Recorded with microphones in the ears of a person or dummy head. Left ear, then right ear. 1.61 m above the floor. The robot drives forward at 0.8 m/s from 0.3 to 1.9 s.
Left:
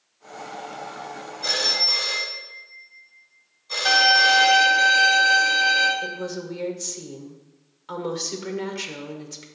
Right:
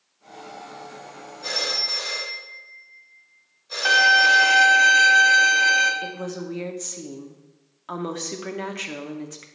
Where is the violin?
30° right (ahead or behind), 1.0 m.